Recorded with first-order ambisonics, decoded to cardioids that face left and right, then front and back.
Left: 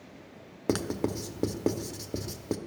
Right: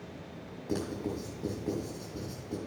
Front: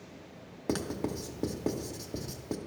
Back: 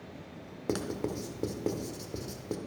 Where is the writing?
90° left, 0.8 m.